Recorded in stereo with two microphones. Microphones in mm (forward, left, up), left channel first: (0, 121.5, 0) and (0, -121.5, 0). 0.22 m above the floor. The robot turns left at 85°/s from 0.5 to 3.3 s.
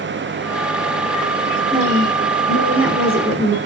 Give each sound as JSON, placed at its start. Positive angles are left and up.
{"t": 1.7, "sound": "a woman speaking", "azimuth_deg": -20, "distance_m": 4.0}